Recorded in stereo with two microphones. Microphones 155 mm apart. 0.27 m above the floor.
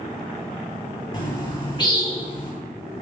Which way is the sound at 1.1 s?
30° left (ahead or behind).